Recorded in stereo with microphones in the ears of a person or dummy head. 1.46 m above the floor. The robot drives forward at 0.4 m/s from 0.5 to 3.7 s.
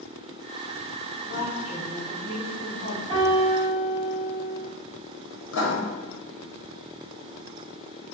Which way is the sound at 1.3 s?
75° left (ahead or behind).